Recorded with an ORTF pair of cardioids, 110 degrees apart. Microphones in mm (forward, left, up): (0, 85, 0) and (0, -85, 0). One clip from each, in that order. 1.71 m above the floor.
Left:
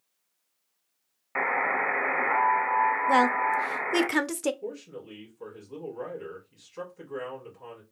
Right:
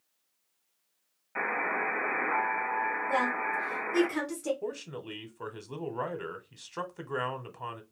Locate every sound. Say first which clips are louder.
1.4 s a buzzer: left 4 dB; 50° left, 0.9 m
3.1 s a woman speaking: left 6 dB; 60° left, 0.6 m
4.6 s a man speaking: right 1 dB; 70° right, 0.9 m